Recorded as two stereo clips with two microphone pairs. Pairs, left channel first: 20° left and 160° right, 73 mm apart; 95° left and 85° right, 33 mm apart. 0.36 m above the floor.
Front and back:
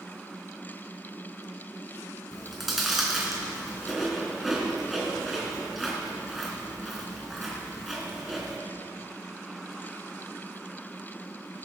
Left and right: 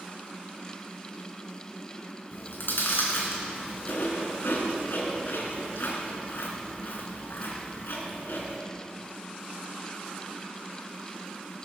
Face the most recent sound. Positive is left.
turn(degrees=110)